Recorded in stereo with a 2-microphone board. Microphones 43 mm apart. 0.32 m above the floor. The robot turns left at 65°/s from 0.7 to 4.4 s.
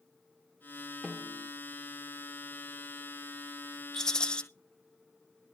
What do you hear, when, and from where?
1.0 s a snare drum: 10° right (ahead or behind), 1.6 m; by 1.5 s 10° left (ahead or behind), 1.6 m
3.9 s a rattle: 15° left (ahead or behind), 1.2 m; by 4.4 s 20° left (ahead or behind), 1.2 m